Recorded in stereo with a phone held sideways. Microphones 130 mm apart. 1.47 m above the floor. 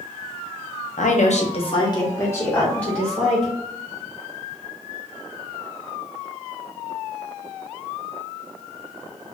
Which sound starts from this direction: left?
A woman speaking, at 1.0 s.